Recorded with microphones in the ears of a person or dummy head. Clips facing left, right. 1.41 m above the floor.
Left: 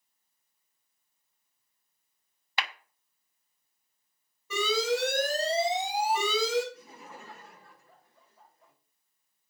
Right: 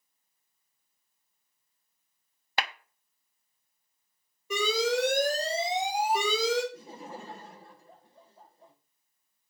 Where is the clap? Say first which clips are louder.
Right 3 dB; 40° right (ahead or behind), 0.6 m.